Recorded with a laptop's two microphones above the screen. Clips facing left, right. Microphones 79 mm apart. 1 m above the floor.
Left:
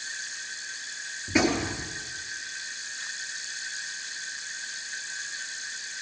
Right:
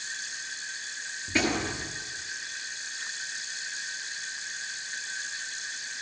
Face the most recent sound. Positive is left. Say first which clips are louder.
# left 3 dB
turn(degrees=10)  # may be behind; listen again after turning